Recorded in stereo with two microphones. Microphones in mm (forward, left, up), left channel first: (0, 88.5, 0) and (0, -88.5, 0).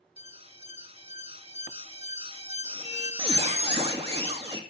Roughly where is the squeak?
Right.